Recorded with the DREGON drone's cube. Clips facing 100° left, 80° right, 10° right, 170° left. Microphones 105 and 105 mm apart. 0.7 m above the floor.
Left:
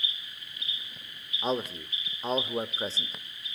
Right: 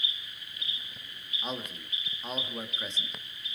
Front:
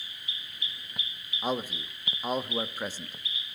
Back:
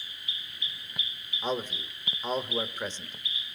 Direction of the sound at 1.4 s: 65° left.